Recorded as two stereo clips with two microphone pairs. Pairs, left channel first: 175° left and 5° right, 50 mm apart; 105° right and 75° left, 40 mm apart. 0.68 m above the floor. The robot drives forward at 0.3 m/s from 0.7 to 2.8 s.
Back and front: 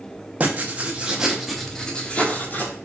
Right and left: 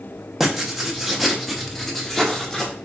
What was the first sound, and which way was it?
Writing, straight ahead.